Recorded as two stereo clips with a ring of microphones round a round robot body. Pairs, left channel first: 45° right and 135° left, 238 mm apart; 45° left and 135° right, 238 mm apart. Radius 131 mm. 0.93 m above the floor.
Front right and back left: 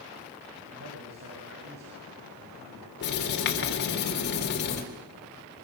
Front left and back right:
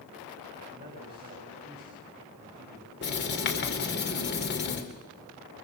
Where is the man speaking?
170° left, 7.5 m.